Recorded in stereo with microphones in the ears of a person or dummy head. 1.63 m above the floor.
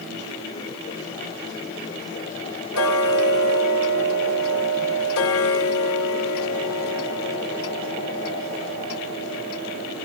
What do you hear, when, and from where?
2.7 s ticking: 85° left, 2.5 m